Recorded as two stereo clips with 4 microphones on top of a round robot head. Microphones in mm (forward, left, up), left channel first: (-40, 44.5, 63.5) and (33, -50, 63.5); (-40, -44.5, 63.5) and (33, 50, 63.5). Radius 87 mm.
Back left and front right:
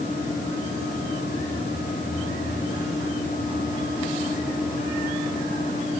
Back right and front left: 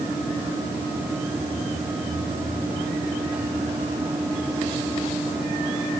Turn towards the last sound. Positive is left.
No sound to turn to.